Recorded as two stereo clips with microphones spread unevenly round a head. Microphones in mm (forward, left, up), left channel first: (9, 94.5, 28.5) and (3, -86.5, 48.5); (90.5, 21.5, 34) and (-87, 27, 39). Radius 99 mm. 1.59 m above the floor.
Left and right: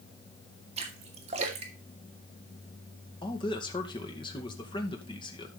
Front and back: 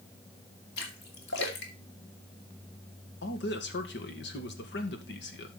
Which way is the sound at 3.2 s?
20° left.